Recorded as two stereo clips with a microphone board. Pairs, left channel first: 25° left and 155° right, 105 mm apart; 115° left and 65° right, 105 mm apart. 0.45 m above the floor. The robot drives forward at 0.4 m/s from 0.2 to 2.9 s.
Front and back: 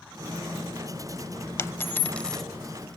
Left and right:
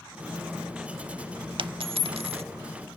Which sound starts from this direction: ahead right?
A dropped coin, at 1.6 s.